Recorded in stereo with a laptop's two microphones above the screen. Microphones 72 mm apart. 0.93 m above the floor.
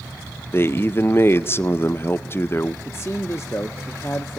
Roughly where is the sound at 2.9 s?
Left.